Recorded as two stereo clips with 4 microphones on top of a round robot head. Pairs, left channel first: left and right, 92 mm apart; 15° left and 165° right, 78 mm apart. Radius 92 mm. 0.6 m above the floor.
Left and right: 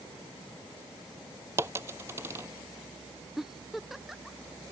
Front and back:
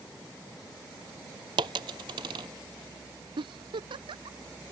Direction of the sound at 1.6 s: 155° right.